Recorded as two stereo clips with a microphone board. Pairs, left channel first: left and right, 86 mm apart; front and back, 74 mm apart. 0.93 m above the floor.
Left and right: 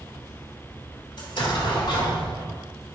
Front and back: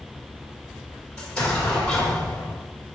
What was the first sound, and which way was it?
An explosion, 75° left.